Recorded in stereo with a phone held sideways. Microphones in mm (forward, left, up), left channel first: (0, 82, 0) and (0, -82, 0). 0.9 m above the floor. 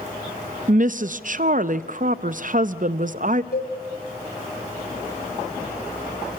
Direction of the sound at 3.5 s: 70° left (ahead or behind).